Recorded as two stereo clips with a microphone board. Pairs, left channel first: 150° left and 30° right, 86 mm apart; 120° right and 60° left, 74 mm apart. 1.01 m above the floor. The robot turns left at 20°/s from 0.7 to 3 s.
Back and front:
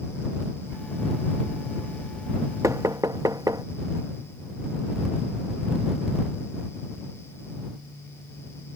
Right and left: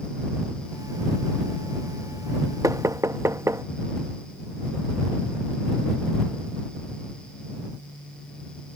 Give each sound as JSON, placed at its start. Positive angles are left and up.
{"t": 2.6, "sound": "knocking", "azimuth_deg": 20}